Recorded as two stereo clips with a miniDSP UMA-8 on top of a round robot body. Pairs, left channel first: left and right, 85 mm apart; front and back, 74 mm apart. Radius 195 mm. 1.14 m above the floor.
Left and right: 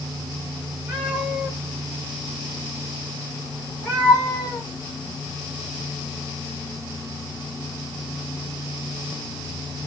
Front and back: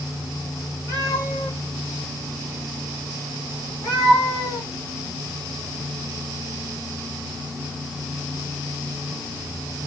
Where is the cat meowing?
50° right, 1.2 m; by 4.7 s 110° left, 1.5 m.